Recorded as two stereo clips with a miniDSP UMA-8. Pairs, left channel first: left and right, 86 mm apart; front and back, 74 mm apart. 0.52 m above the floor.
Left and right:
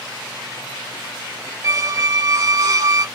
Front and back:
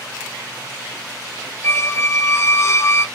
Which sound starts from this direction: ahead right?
A squeak, at 1.6 s.